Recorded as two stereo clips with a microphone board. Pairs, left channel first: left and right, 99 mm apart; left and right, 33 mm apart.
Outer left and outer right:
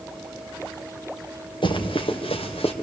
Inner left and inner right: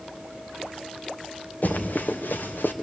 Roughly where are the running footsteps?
Left.